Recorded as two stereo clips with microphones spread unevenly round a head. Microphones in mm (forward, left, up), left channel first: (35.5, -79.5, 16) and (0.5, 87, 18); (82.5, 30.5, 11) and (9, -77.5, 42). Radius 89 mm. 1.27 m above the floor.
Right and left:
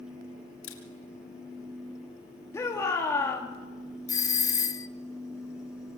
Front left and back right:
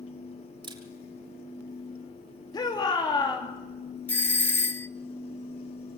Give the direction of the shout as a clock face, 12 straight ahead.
12 o'clock.